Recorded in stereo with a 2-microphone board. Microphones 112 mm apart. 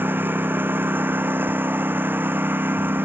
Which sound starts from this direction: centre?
A lawn mower, at 0.0 s.